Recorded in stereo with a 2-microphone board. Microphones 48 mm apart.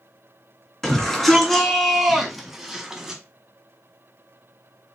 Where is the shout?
15° left (ahead or behind), 2.5 m; by 3.2 s 10° right (ahead or behind), 1.5 m.